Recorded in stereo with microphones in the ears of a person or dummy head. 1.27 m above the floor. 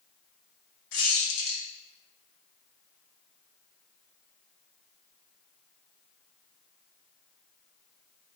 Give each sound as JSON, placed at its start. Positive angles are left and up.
{"t": 0.9, "sound": "a squeak", "side_deg": 80, "distance_m": 1.1}